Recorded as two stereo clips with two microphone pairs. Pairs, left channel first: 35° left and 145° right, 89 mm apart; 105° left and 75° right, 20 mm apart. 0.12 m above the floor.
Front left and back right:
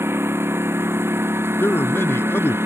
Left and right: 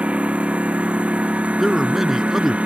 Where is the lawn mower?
85° right.